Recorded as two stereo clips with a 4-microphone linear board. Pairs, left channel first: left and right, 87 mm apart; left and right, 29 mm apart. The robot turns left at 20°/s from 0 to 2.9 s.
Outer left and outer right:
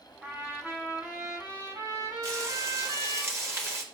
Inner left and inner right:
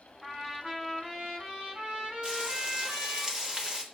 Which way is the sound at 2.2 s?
40° right (ahead or behind).